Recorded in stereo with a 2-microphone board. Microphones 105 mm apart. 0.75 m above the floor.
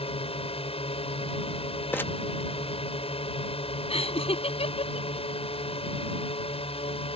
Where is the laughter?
70° left (ahead or behind).